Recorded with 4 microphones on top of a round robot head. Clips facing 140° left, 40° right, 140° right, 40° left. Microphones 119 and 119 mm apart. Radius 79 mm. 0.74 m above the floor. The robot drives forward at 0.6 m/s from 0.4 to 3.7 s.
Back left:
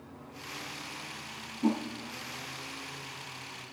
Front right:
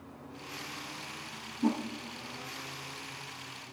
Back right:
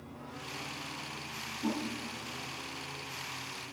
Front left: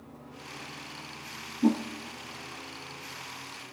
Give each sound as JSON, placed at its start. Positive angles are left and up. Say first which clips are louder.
{"t": 1.6, "sound": "a whoosh", "louder": "back left 1 dB, front left 10 dB", "azimuth_deg": 25, "distance_m": 4.5}